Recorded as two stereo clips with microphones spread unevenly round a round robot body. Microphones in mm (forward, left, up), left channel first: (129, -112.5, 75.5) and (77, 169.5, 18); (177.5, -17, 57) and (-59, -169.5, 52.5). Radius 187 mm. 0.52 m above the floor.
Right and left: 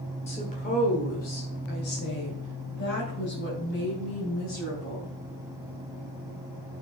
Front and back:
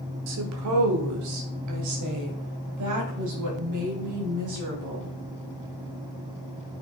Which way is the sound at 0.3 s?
155° right.